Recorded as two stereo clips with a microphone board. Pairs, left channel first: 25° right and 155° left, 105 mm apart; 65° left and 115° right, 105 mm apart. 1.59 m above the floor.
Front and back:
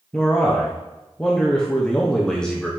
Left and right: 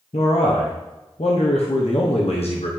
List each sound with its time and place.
0.1 s a man speaking: 60° left, 1.0 m